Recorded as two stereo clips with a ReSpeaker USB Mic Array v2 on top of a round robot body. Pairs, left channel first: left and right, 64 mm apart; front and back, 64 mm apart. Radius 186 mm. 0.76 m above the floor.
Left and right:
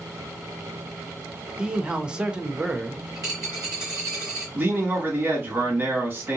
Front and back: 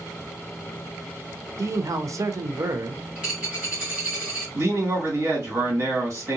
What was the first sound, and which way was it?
A man speaking, 160° right.